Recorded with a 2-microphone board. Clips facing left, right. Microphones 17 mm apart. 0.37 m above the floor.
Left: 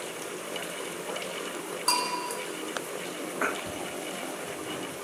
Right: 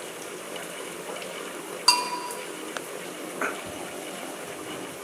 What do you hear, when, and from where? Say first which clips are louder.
1.9 s a bell: right 5 dB; 45° right (ahead or behind), 1.4 m